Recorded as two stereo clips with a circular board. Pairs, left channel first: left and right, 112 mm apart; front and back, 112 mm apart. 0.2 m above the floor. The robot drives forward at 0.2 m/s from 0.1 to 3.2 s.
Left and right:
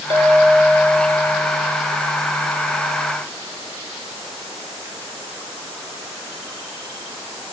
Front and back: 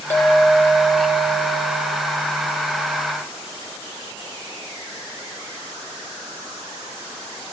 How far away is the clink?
About 2 m.